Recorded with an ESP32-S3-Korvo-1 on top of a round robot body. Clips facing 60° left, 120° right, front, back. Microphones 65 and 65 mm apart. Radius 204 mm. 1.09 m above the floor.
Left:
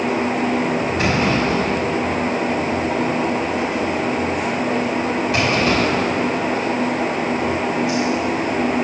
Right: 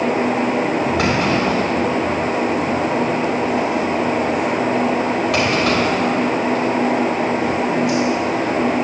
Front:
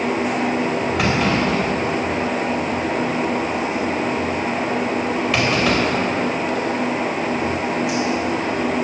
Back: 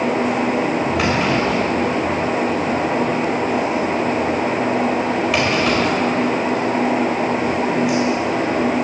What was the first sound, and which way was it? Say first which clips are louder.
A clunk: left 1 dB, front 1 dB; 95° right.